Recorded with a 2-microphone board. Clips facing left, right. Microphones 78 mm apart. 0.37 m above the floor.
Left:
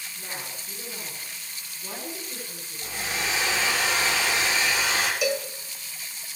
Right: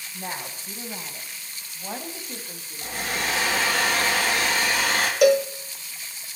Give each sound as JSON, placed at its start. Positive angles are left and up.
{"t": 0.1, "sound": "a woman speaking", "side_deg": -65, "distance_m": 2.5}
{"t": 2.8, "sound": "a hair dryer", "side_deg": -55, "distance_m": 2.0}
{"t": 5.2, "sound": "a cowbell", "side_deg": -60, "distance_m": 0.6}